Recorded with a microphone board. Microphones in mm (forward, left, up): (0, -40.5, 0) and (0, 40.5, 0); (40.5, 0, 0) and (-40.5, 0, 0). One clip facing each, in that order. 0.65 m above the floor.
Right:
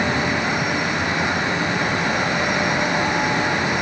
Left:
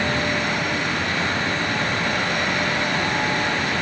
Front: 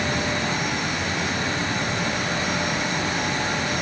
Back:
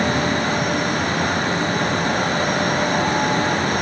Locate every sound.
Only background noise.